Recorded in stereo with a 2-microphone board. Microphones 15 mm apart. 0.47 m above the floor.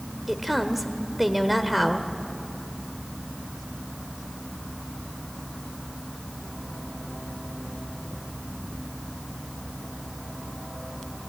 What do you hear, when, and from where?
0.3 s a woman speaking: 5° right (ahead or behind), 1.5 m